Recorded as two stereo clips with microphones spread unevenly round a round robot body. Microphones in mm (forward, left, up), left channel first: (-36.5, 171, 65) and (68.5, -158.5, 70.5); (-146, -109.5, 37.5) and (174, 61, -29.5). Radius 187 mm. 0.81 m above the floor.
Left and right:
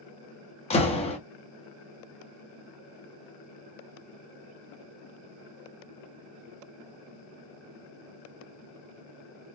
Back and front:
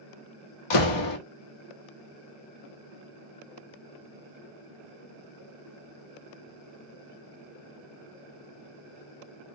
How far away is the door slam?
About 1.1 m.